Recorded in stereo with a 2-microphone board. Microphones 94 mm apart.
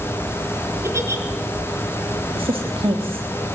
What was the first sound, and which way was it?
A giggle, 30° right (ahead or behind).